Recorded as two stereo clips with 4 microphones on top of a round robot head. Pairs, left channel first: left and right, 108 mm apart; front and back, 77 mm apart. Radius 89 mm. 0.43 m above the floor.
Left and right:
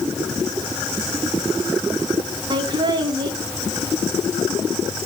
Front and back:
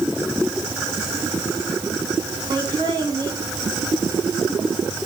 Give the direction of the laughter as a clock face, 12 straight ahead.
5 o'clock.